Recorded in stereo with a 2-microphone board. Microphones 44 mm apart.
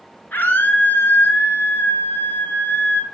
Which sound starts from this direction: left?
A scream, at 0.3 s.